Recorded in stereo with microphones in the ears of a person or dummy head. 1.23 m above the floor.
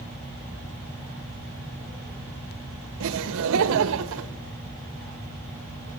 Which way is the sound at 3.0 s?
70° right (ahead or behind).